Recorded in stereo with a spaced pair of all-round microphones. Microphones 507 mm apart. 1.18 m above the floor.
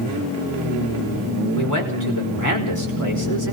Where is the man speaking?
35° left (ahead or behind), 5 m.